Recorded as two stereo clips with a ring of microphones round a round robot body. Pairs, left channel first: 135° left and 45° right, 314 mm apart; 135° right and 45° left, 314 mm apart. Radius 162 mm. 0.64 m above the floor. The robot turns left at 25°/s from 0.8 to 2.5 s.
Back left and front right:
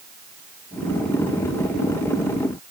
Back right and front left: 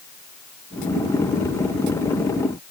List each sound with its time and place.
Only background noise.